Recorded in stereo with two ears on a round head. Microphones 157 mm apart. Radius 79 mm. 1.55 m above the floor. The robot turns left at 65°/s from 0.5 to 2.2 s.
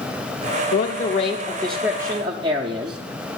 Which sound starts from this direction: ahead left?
A man speaking, at 0.7 s.